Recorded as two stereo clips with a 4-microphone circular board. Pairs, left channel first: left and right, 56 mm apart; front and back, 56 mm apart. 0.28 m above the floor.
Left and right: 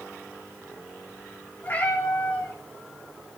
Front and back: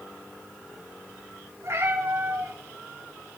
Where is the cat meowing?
145° left, 4 m.